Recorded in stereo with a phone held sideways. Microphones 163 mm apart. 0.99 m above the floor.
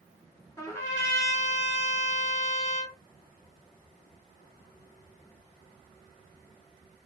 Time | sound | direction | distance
0.6 | a trumpet | 20° left (ahead or behind) | 1.9 m